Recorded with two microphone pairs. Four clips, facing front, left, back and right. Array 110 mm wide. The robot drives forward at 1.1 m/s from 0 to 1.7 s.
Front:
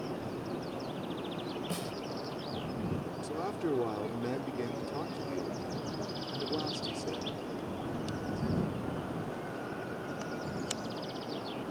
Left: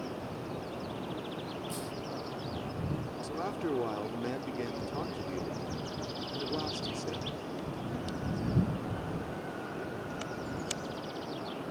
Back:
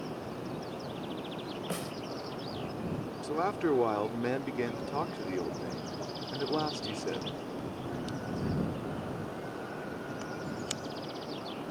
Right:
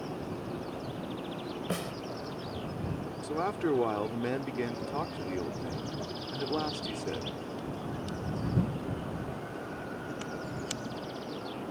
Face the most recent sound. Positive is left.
turn(degrees=-150)